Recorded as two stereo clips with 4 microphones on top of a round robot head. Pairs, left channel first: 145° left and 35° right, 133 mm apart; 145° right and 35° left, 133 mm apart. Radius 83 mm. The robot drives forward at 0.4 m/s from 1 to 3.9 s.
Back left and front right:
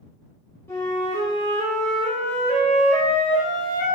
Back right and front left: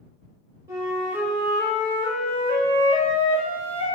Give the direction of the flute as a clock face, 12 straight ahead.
9 o'clock.